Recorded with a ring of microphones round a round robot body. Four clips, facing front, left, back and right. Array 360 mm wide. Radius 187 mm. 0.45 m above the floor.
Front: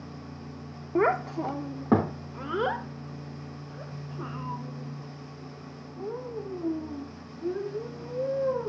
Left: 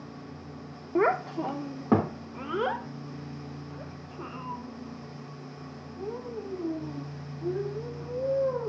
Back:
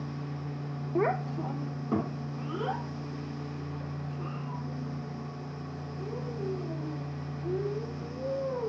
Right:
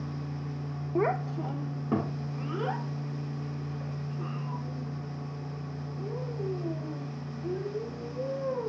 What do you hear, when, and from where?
0.9 s a child speaking: 45° left, 0.6 m; by 8.7 s 35° left, 5 m